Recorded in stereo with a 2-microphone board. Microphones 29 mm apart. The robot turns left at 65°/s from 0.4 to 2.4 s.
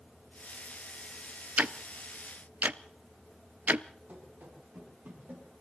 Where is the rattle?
I don't hear a rattle.